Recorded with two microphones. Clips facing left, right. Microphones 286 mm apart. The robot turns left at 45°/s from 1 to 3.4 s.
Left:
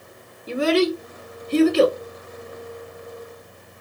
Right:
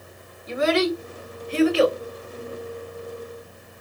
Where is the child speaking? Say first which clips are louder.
Left 2 dB; 35° left (ahead or behind), 0.9 m; by 2.0 s 50° left (ahead or behind), 0.9 m.